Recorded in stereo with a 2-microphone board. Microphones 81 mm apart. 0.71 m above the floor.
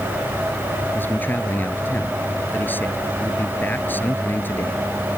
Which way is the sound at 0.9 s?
25° left (ahead or behind).